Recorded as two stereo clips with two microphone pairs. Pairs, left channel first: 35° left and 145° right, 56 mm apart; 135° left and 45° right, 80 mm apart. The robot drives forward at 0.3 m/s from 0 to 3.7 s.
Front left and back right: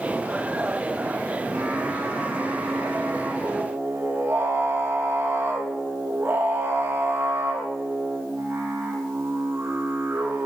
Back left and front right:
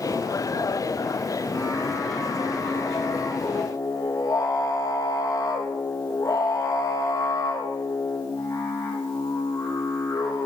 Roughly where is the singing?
Behind.